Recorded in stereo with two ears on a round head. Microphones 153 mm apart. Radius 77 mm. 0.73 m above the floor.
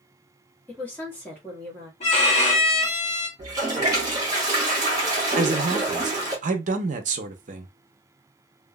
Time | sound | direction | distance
0.7 | a woman speaking | 10° left (ahead or behind) | 1.3 m
2.0 | a violin | 35° left (ahead or behind) | 1.0 m
3.4 | a toilet flushing | 20° right (ahead or behind) | 1.2 m
5.4 | a man speaking | 45° right (ahead or behind) | 0.6 m